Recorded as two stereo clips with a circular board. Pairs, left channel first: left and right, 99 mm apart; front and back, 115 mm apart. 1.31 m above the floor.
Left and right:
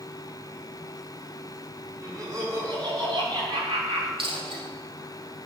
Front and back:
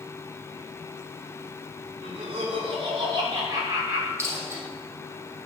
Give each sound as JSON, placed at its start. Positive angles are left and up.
{"t": 2.0, "sound": "laughter", "azimuth_deg": -145, "distance_m": 4.5}
{"t": 4.2, "sound": "a dropped coin", "azimuth_deg": -115, "distance_m": 3.5}